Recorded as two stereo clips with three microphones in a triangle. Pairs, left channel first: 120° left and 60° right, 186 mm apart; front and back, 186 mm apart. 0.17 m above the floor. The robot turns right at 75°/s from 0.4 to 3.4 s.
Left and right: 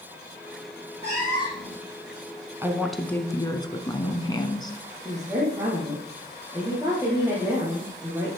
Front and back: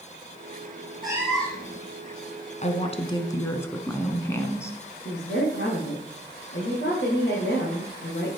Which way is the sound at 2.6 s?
5° left.